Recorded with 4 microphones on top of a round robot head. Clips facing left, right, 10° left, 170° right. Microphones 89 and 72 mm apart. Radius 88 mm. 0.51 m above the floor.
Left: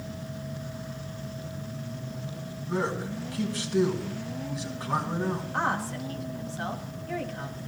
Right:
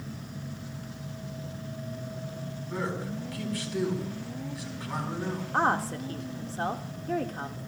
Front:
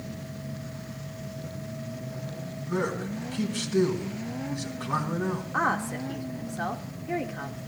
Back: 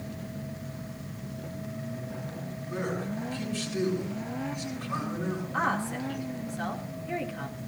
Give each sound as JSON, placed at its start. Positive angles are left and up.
{"t": 2.7, "sound": "a man speaking", "azimuth_deg": 25, "distance_m": 4.5}
{"t": 5.5, "sound": "a woman speaking", "azimuth_deg": -55, "distance_m": 1.6}